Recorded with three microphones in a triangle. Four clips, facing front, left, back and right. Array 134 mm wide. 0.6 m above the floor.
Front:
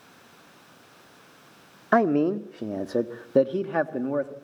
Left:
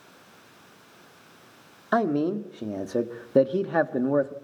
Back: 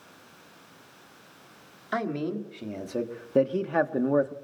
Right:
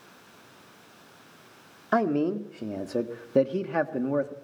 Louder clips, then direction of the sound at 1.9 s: Left 1 dB, front 9 dB; 10° left.